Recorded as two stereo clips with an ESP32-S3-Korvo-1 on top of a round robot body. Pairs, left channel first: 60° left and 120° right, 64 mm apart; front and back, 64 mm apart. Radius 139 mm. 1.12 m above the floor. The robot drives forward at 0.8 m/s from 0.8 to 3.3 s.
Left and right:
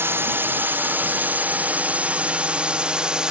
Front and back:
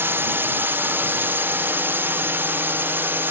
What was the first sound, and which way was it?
A drone, 150° right.